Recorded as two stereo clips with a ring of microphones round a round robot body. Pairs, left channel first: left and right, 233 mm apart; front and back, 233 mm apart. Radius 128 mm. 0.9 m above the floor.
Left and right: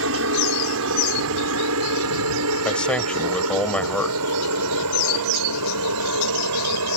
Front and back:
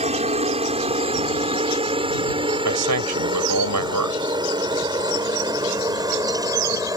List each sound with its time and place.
0.0 s a helicopter: 120° right; by 7.0 s 105° right
2.6 s a man speaking: 175° left